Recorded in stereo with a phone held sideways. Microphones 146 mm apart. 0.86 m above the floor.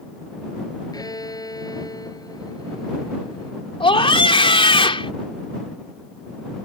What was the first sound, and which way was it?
A violin, 25° left (ahead or behind).